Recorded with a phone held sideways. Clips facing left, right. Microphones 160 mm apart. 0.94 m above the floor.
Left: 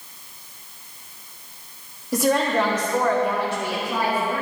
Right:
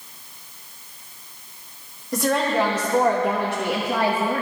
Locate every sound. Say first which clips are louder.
2.1 s a woman speaking: left 1 dB; 15° left (ahead or behind), 1.4 m; by 4.4 s 80° right, 1.6 m